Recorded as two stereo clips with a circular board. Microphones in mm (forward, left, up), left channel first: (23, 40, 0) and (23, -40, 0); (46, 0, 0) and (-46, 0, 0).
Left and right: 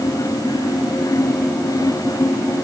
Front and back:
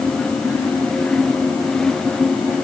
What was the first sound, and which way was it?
Only background noise.